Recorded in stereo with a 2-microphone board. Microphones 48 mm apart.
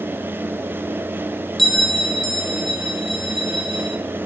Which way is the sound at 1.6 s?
5° left (ahead or behind).